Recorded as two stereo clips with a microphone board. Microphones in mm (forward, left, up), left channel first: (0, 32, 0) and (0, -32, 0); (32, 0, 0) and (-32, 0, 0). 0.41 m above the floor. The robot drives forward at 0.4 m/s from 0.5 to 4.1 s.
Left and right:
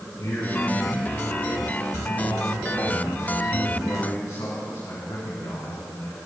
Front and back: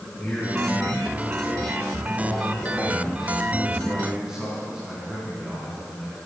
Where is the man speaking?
80° left, 4.5 m; by 6.2 s 100° left, 4.5 m.